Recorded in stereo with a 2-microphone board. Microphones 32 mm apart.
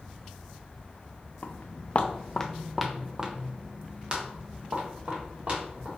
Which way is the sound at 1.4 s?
75° left (ahead or behind).